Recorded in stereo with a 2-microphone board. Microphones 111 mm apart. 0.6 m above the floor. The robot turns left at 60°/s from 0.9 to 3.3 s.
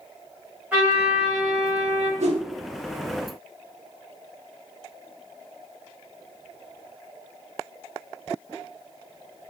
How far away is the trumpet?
About 0.8 m.